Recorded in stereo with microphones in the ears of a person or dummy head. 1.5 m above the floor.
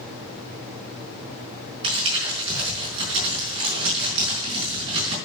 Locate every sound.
1.8 s crumpling: 35° right (ahead or behind), 5 m